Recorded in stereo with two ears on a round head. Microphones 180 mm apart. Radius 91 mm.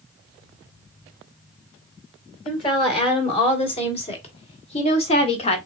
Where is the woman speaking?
30° left (ahead or behind), 3 m.